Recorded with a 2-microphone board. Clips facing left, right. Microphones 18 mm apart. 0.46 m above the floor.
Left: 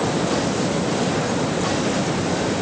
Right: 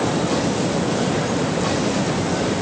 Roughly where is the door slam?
No door slam in this recording.